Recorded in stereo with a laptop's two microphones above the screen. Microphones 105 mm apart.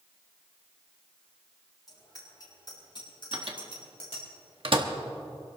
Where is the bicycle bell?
35° left (ahead or behind), 6 m; by 4.2 s 70° left (ahead or behind), 4 m.